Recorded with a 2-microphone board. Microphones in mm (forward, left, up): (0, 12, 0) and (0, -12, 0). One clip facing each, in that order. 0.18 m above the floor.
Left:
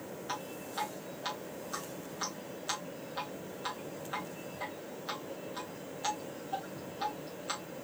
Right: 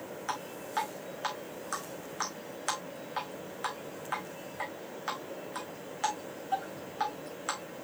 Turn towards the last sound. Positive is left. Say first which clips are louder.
# right 5 dB
turn(degrees=-80)